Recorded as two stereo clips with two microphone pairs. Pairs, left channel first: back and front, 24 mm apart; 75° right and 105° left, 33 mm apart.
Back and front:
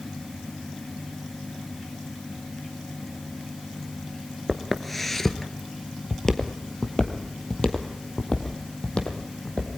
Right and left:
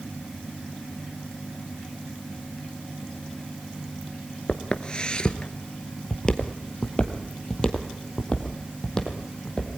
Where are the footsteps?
95° right, 1.2 m; by 9.7 s 145° right, 3.5 m.